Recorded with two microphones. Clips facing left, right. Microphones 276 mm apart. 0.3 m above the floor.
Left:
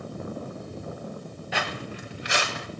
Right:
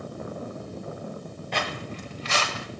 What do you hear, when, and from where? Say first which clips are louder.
1.5 s footsteps: right 1 dB; 5° left (ahead or behind), 3 m; by 2.7 s 15° left (ahead or behind), 4.5 m